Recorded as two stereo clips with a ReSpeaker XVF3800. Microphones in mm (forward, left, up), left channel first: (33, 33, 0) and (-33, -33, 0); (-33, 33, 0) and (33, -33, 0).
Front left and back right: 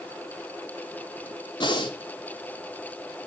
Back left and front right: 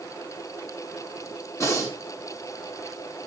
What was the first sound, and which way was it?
Breathing, 80° left.